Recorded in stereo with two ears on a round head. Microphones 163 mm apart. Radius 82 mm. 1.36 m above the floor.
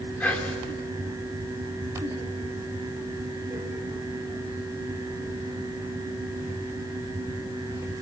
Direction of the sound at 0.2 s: 10° left (ahead or behind).